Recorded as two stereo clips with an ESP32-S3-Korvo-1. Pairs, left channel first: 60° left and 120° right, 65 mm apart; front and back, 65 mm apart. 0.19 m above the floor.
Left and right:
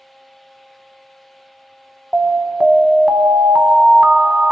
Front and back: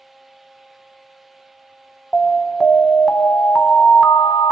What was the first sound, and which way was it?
An alarm, 75° right.